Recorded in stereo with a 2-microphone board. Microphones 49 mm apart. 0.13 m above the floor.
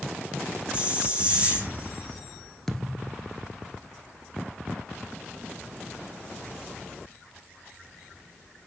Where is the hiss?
20° right (ahead or behind), 5 m.